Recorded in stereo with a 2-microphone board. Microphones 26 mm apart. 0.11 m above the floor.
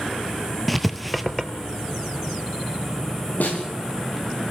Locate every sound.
0.7 s writing: 5° left (ahead or behind), 1.3 m
3.4 s a snare drum: 90° left, 6.5 m